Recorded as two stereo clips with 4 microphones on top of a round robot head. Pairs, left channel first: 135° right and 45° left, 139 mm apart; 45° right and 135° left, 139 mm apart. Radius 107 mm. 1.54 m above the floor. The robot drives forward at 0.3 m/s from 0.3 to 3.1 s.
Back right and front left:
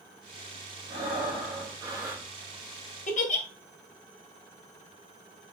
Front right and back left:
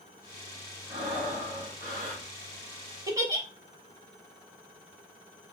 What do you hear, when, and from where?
0.9 s breathing: 95° left, 1.4 m; by 2.3 s 110° left, 1.5 m
3.1 s a giggle: 160° right, 1.0 m